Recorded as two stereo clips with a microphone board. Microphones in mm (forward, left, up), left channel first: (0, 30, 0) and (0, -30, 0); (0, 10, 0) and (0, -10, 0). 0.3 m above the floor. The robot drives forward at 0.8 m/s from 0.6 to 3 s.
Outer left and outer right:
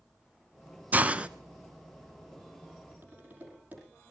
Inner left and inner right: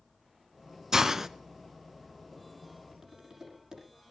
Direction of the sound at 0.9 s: 30° right (ahead or behind).